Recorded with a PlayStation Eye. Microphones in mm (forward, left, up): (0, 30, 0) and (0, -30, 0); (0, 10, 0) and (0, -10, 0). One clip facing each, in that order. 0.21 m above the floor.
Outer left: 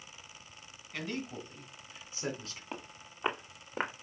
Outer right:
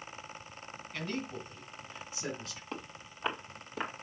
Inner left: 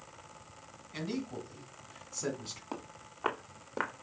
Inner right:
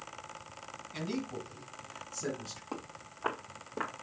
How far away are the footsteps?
About 2.5 m.